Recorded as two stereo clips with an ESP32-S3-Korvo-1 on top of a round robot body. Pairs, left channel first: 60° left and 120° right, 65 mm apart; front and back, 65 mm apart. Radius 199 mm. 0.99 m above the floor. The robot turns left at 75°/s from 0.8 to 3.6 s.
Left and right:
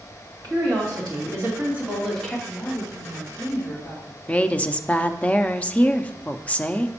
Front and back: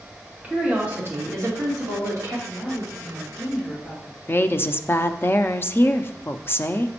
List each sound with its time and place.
0.4 s a woman speaking: 110° right, 2.5 m; by 2.4 s 130° left, 2.5 m
2.5 s a woman speaking: 145° left, 1.6 m; by 4.2 s 60° left, 1.6 m
4.3 s a woman speaking: 10° left, 0.6 m